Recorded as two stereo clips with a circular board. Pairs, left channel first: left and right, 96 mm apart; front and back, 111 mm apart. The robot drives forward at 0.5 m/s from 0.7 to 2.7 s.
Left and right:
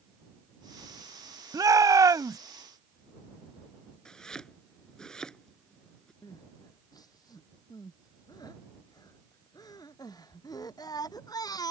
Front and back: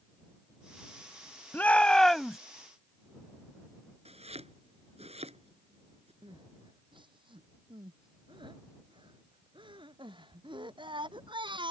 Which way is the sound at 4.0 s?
175° left.